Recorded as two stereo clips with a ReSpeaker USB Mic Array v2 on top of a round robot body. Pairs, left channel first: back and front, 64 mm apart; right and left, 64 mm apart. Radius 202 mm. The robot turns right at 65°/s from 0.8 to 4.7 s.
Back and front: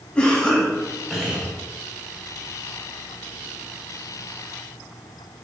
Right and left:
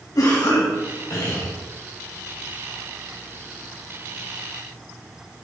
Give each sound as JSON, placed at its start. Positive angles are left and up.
{"t": 0.1, "sound": "a cough", "azimuth_deg": -110, "distance_m": 3.0}